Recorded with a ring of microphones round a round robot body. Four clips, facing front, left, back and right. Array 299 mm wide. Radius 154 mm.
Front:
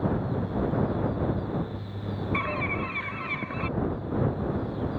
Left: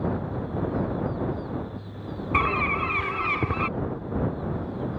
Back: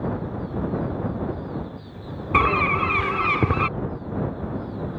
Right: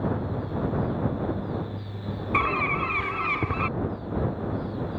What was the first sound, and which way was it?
A bird, straight behind.